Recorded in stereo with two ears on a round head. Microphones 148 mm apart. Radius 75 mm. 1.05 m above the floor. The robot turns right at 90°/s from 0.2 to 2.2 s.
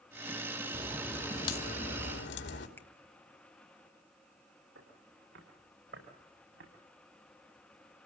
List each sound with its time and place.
0.7 s a crack: 35° right, 2.5 m; by 2.7 s 95° left, 2.5 m
2.8 s a finger snap: 10° left (ahead or behind), 1.0 m
4.8 s footsteps: 85° right, 8.5 m; by 6.7 s 75° right (ahead or behind), 7.5 m